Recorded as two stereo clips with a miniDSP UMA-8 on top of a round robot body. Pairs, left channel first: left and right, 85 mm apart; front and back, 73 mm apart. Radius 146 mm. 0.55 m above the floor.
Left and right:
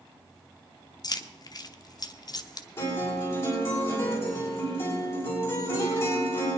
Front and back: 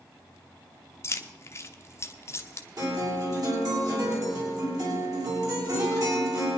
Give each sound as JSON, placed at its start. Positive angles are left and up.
{"t": 1.0, "sound": "keys jangling", "azimuth_deg": 50, "distance_m": 0.9}
{"t": 2.8, "sound": "a guitar", "azimuth_deg": 150, "distance_m": 6.0}